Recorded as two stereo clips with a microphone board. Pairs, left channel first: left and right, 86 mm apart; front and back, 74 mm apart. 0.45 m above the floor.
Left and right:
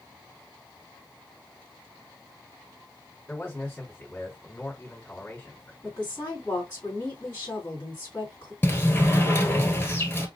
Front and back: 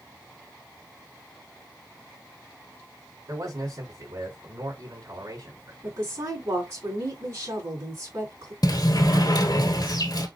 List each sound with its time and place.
3.3 s a man speaking: 155° left, 4 m
5.8 s a woman speaking: 155° left, 3.5 m
8.6 s a sliding door: 25° left, 1.3 m